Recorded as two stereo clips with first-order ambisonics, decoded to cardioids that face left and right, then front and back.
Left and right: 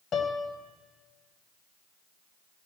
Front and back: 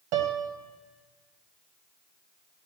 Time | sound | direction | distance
0.1 | a piano | 150° left | 0.9 m